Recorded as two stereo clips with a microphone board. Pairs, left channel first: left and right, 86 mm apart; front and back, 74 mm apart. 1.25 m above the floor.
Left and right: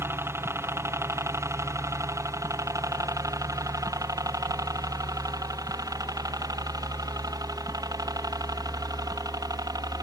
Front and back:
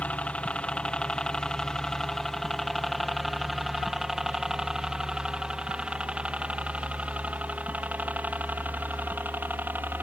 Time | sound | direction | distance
0.0 | a helicopter | 60° right | ?